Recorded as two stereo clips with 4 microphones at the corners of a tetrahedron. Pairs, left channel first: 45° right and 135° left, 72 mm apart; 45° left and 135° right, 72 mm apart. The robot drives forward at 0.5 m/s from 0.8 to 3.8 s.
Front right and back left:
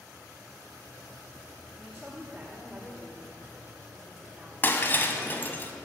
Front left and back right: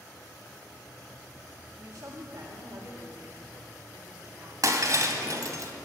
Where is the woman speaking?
130° right, 1.9 m; by 4.5 s 150° right, 2.5 m.